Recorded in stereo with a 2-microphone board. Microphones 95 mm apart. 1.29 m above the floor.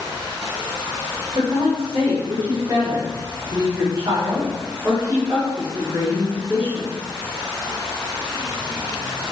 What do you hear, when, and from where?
1.4 s a woman speaking: 50° right (ahead or behind), 2.5 m; by 6.9 s 20° right (ahead or behind), 5 m